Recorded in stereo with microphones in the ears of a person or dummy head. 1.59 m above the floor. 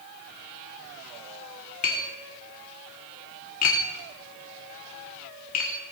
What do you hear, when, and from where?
1.8 s tapping: 45° left (ahead or behind), 1.4 m